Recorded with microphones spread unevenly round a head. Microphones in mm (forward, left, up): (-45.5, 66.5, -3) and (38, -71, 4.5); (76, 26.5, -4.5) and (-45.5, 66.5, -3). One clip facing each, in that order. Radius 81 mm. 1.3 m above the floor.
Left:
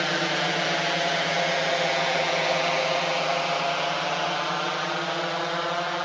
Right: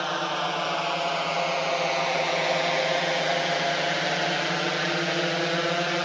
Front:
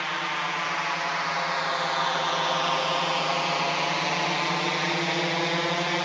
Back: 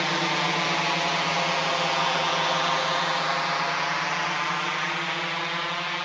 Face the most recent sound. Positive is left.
turn(degrees=-10)